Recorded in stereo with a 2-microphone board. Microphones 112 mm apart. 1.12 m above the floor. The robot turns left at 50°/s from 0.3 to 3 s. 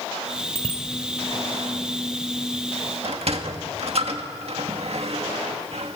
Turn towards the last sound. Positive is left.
turn(degrees=-60)  # may be behind; listen again after turning